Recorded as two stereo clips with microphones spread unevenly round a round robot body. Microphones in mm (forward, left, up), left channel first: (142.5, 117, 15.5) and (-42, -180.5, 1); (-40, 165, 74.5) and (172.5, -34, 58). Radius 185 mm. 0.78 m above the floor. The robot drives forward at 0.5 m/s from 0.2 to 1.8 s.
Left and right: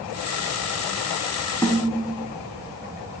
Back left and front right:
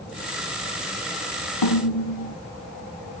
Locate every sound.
1.6 s a snare drum: 145° left, 2.5 m